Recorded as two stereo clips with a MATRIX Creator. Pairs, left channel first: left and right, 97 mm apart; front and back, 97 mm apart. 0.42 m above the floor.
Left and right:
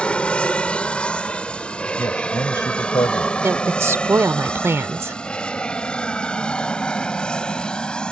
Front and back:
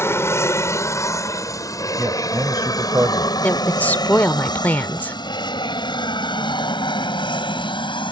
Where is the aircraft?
25° left; by 8.1 s 10° left.